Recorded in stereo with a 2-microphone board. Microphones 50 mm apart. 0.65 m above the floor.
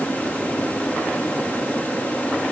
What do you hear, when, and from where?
Only background noise.